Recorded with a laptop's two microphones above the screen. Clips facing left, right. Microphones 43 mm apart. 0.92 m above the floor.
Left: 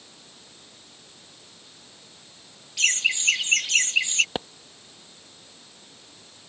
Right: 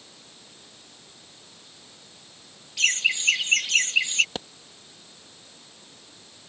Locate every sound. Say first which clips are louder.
2.8 s laughter: even; centre (ahead or behind)
4.3 s a pop: left 4 dB; 20° left (ahead or behind)